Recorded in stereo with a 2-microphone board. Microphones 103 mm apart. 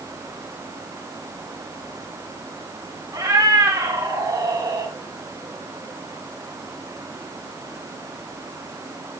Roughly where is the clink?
I don't hear a clink.